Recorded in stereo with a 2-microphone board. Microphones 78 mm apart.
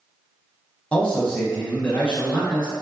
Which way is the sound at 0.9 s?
15° left (ahead or behind).